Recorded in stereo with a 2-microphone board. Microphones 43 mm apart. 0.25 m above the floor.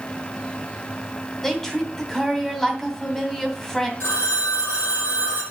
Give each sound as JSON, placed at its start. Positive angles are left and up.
{"t": 1.4, "sound": "a woman speaking", "side_deg": 5, "distance_m": 2.0}
{"t": 4.0, "sound": "a phone ringing", "side_deg": 70, "distance_m": 6.0}